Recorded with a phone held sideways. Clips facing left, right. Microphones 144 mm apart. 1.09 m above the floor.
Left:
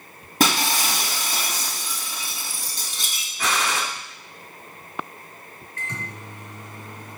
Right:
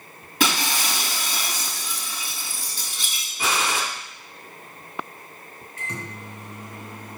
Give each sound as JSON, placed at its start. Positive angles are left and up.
{"t": 0.4, "sound": "breaking glass", "side_deg": 45, "distance_m": 3.0}
{"t": 3.4, "sound": "a gunshot", "side_deg": -10, "distance_m": 1.7}
{"t": 5.8, "sound": "a microwave", "side_deg": -15, "distance_m": 2.5}